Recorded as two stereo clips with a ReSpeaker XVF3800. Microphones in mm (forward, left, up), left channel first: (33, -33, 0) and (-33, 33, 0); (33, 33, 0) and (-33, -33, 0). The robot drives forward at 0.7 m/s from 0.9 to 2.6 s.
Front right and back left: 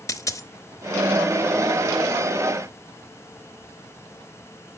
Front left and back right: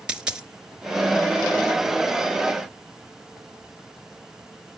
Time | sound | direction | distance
0.1 | a dropped coin | 60° right | 0.8 m